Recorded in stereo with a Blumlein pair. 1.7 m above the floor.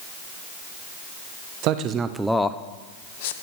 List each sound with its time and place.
1.6 s a man speaking: 40° right, 0.8 m; by 3.3 s 55° left, 1.0 m